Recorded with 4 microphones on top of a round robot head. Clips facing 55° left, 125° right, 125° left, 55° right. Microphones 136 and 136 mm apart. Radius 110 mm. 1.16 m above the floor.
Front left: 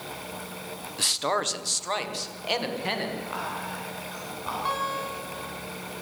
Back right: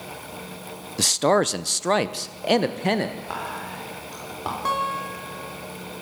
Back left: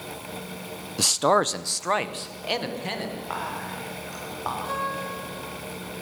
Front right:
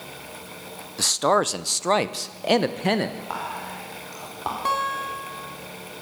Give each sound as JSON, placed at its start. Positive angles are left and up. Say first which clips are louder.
{"t": 1.0, "sound": "a man speaking", "louder": "back right 9 dB, even", "azimuth_deg": -165, "distance_m": 0.9}
{"t": 3.3, "sound": "whispering", "louder": "back right 1 dB, even", "azimuth_deg": -125, "distance_m": 4.0}
{"t": 4.7, "sound": "a guitar", "louder": "back right 4 dB, front right 3 dB", "azimuth_deg": -80, "distance_m": 3.5}